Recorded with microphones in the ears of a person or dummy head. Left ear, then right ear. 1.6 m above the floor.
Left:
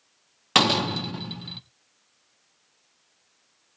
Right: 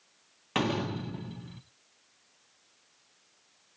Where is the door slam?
50° left (ahead or behind), 0.9 m.